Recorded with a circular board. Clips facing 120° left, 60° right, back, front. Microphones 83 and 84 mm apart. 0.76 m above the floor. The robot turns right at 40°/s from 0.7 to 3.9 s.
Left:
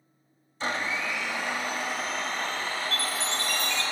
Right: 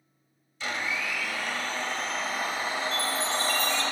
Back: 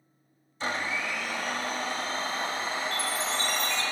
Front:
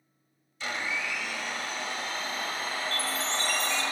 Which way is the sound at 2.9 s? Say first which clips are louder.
Right 2 dB, back 1 dB; 115° left.